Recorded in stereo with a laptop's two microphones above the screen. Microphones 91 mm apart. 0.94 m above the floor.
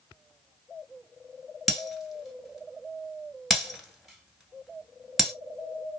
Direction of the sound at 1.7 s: Centre (ahead or behind).